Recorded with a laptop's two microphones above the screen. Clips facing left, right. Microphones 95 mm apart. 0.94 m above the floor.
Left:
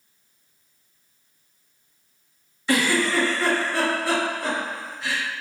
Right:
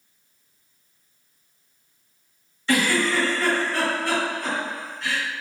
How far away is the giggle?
About 1.5 m.